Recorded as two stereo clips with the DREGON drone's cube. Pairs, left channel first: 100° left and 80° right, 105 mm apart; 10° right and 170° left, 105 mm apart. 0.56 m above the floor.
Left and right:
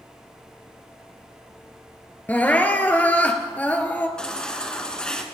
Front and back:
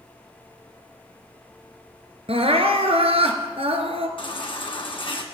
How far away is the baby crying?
About 2.0 m.